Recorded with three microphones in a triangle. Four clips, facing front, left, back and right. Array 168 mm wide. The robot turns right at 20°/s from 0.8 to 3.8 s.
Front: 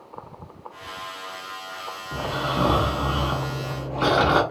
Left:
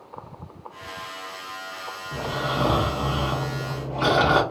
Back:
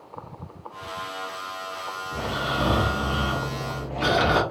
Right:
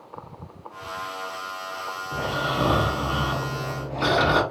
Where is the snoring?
20° left, 1.2 m; by 4.4 s 50° left, 1.2 m.